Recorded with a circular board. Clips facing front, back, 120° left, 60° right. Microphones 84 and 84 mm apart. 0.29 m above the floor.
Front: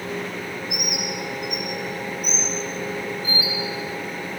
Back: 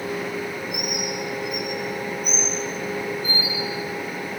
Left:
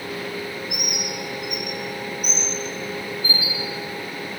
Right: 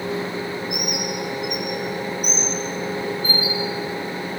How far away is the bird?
About 8.5 m.